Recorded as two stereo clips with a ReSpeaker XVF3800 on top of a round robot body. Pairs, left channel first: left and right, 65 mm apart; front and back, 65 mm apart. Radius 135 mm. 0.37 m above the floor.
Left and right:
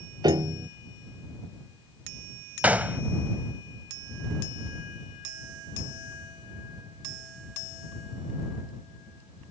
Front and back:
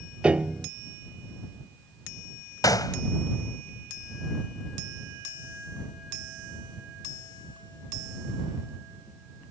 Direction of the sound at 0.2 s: 105° right.